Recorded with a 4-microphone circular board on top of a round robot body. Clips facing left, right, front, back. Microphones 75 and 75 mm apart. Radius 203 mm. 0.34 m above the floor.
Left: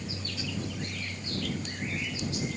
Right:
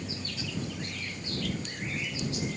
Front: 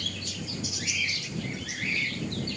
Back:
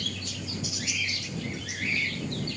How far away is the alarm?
I don't hear an alarm.